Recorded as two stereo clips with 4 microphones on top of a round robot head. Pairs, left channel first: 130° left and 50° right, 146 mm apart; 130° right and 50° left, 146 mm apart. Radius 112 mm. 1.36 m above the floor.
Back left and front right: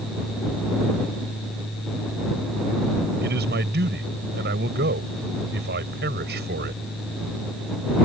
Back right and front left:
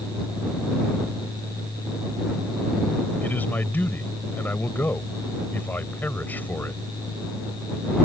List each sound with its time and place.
3.2 s a man speaking: 50° right